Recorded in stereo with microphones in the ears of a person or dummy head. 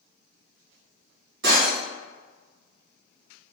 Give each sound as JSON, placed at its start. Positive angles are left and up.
{"t": 1.4, "sound": "breaking glass", "side_deg": -60, "distance_m": 1.7}